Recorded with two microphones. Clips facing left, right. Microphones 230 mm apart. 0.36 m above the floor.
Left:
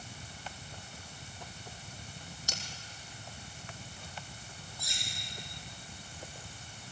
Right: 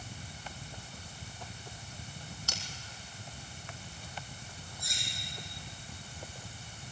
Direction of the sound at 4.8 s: 85° left.